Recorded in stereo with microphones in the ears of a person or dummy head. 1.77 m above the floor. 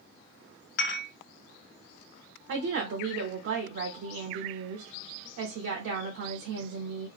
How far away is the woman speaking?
About 0.6 m.